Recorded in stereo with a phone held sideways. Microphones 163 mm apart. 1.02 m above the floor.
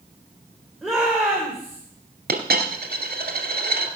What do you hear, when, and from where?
0.8 s a shout: centre (ahead or behind), 3 m
2.3 s a dropped coin: 75° right (ahead or behind), 2 m